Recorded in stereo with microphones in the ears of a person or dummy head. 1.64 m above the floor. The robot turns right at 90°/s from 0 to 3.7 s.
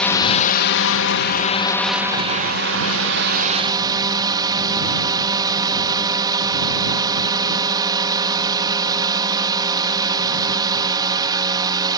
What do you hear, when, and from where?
0.0 s a drone: 5° left; by 12.0 s 20° right